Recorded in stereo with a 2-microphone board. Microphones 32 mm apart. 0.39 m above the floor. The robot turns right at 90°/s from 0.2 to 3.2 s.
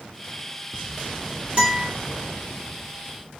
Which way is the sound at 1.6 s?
25° right (ahead or behind).